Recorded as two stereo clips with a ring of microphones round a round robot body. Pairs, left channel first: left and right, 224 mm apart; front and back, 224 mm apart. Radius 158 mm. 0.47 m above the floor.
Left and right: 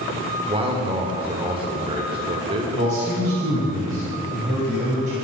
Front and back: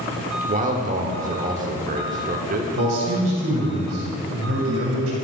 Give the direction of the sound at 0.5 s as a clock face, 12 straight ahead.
5 o'clock.